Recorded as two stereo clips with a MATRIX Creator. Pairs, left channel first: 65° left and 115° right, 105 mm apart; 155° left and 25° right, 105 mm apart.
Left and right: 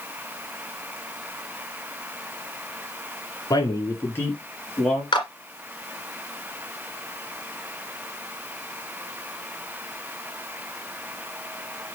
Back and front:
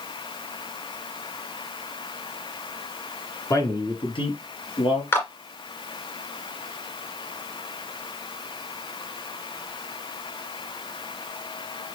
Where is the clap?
95° left, 1.7 m.